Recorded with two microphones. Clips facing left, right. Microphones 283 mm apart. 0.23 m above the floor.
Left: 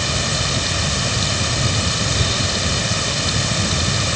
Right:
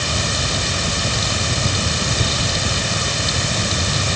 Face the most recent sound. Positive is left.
No sound to turn to.